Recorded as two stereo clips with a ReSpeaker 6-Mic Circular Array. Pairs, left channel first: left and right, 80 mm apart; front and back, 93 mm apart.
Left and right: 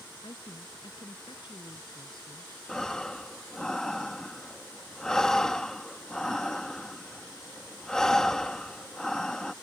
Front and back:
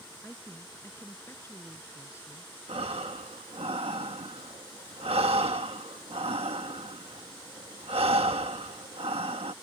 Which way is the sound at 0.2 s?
65° left.